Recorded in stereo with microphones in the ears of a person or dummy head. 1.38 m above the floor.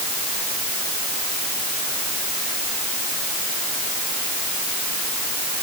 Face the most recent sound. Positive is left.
No sound to turn to.